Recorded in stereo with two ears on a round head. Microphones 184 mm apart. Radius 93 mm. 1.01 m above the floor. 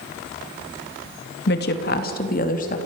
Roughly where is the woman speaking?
Left.